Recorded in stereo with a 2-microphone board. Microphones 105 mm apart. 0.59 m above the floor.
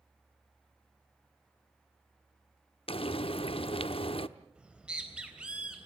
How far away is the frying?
About 0.8 m.